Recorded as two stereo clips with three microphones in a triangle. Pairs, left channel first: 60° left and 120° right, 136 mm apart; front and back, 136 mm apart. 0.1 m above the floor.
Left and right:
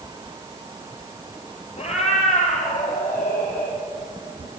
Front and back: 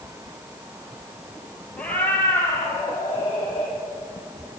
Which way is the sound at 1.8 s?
80° left.